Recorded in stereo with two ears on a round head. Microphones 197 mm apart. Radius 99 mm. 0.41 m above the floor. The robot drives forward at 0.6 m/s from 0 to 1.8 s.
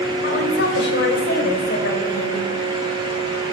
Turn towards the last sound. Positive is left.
turn(degrees=50)  # may be behind; listen again after turning